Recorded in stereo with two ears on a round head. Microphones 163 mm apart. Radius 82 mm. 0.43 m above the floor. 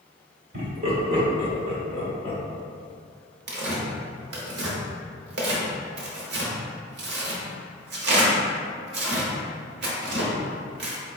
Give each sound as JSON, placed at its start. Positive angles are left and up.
{"t": 0.5, "sound": "laughter", "side_deg": -45, "distance_m": 1.5}
{"t": 3.5, "sound": "tearing paper", "side_deg": -60, "distance_m": 0.8}